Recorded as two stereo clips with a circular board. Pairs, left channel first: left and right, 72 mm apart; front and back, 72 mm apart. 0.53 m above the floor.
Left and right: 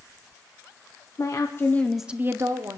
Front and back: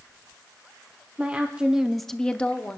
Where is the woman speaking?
110° left, 1.3 m; by 2.8 s 70° right, 1.3 m.